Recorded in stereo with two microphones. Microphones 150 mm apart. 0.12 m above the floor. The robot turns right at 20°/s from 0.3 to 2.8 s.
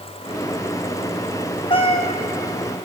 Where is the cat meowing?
35° left (ahead or behind), 1.3 m; by 2.2 s 45° left (ahead or behind), 1.3 m.